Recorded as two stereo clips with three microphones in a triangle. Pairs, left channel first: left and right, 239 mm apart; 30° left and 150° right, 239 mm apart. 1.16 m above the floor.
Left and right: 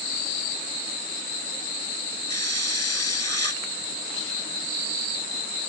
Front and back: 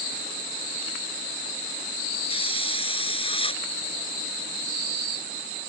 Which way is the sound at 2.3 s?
100° left.